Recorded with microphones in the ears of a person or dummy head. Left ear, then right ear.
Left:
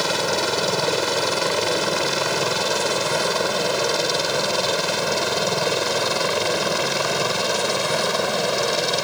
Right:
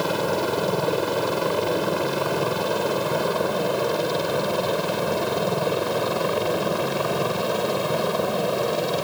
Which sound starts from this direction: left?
A helicopter, at 0.0 s.